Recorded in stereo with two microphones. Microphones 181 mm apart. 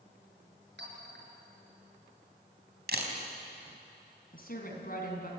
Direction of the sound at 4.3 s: 55° left (ahead or behind).